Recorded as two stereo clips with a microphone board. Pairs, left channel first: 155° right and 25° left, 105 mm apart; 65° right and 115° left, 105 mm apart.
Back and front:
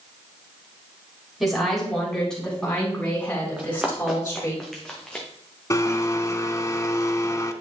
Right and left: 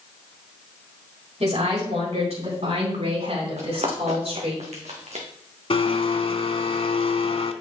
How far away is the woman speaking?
About 4 m.